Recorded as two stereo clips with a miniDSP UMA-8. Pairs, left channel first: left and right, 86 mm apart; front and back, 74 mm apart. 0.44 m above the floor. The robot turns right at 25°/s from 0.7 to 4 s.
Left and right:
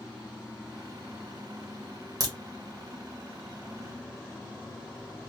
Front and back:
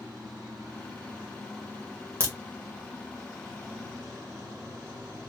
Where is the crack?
130° right, 1.3 m; by 2.3 s 125° right, 1.3 m.